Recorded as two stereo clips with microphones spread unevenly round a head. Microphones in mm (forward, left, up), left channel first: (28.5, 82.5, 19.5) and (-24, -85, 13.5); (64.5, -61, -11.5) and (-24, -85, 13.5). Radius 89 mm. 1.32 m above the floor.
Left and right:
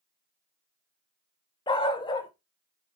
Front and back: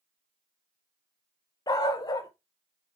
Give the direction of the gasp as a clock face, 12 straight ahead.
No gasp in this recording.